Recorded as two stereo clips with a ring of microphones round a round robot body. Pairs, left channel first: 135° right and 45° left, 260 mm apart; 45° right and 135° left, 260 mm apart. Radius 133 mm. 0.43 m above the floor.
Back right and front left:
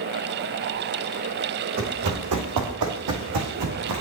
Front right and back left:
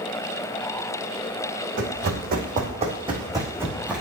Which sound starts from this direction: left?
Running footsteps, at 1.8 s.